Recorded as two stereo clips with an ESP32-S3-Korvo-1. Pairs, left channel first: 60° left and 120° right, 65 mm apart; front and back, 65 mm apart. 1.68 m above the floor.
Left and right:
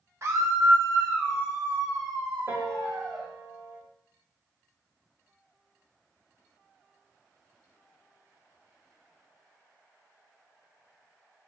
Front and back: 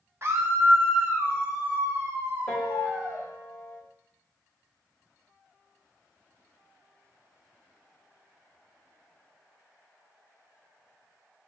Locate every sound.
0.2 s a scream: 145° right, 0.9 m; by 3.3 s 115° right, 4 m
2.5 s a piano: 75° right, 3.5 m